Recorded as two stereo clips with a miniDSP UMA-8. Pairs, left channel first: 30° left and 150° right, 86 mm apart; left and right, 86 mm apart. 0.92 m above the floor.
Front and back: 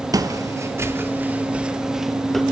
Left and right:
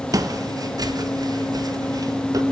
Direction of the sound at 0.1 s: 125° right.